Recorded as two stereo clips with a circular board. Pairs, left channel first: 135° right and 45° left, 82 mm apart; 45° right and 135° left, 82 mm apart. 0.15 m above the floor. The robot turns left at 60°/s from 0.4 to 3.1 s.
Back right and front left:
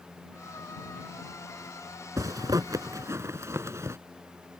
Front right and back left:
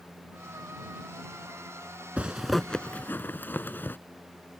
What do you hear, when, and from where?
2.2 s a zipper: 65° left; by 4.0 s 10° left